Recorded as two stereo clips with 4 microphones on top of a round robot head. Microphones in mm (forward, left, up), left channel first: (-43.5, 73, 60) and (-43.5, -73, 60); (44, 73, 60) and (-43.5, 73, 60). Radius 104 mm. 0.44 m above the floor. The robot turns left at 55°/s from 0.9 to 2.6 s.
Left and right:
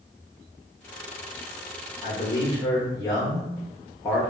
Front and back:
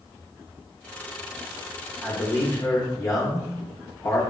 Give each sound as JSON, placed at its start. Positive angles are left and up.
{"t": 2.0, "sound": "a man speaking", "azimuth_deg": 65, "distance_m": 1.2}